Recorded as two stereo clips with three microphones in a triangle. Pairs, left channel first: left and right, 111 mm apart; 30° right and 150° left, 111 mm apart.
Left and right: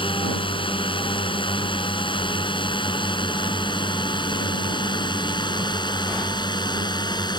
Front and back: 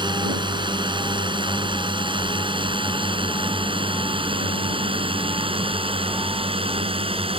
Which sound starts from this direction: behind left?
A drone, at 0.0 s.